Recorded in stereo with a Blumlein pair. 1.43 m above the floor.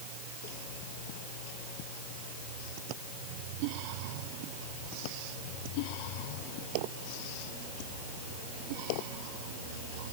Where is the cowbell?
I don't hear a cowbell.